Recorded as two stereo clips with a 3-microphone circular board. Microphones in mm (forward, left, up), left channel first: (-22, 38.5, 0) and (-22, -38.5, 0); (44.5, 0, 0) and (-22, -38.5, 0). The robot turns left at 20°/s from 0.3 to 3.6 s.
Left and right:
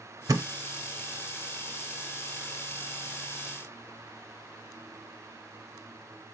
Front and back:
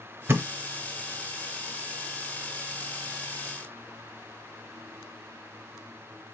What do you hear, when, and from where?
0.3 s a thud: 100° right, 0.6 m; by 0.5 s 105° right, 0.6 m